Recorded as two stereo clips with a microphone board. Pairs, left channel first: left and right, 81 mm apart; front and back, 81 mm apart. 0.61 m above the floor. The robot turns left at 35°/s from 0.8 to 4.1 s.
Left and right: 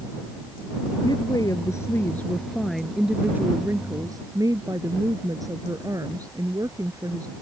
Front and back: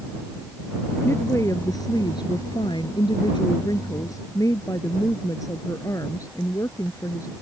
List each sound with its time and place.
1.0 s a woman speaking: 60° left; by 7.3 s 45° right